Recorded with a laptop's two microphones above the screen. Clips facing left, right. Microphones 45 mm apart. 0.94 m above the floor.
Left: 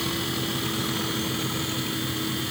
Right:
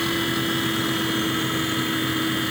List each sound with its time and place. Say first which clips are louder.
0.0 s a fan: right 5 dB; 35° right (ahead or behind)